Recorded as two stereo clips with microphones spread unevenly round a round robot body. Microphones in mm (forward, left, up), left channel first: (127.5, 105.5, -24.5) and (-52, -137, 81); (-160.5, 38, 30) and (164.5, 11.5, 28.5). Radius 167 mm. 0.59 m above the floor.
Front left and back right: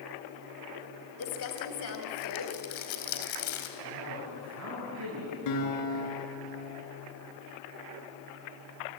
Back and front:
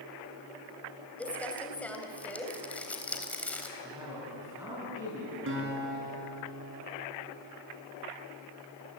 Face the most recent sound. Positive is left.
turn(degrees=50)